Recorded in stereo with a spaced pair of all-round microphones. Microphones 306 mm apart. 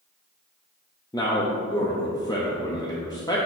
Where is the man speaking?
15° left (ahead or behind), 0.6 m.